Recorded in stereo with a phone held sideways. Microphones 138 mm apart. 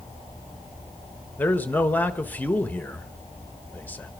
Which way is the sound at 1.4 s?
10° left (ahead or behind).